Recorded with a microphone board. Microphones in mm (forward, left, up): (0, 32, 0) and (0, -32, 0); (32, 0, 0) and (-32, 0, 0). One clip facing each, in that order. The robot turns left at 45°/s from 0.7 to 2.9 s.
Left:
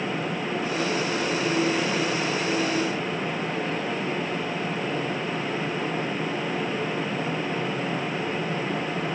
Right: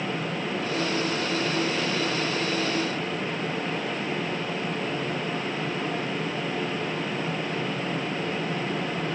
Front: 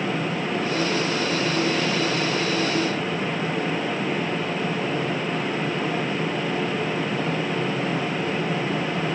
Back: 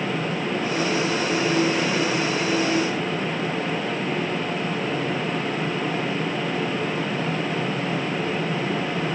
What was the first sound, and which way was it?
Only background noise.